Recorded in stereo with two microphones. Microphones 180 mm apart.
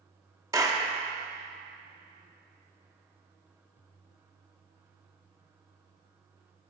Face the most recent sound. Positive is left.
turn(degrees=-20)  # may be behind; listen again after turning